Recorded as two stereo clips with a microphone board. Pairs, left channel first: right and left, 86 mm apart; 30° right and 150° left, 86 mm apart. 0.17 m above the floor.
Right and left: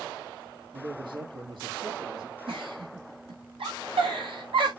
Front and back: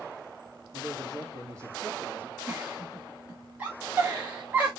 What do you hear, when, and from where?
0.7 s a man speaking: 105° left, 5 m; by 2.4 s 90° left, 4 m
2.5 s a giggle: 80° left, 4 m